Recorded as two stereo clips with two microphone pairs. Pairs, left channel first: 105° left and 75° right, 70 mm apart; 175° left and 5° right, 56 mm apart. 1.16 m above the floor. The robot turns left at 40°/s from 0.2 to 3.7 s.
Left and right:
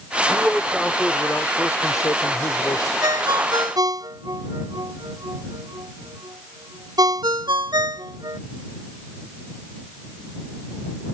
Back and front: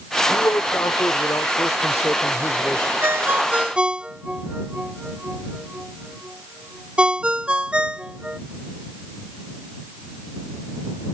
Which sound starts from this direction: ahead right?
A ringtone, at 3.0 s.